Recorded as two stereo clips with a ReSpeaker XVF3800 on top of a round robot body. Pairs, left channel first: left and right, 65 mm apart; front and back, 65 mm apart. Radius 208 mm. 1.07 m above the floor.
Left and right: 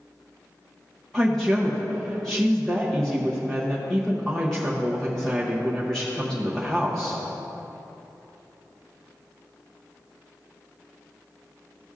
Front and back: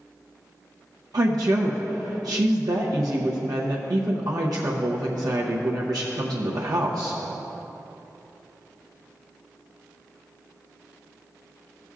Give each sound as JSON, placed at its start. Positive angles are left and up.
{"t": 1.1, "sound": "a woman speaking", "azimuth_deg": 170, "distance_m": 0.7}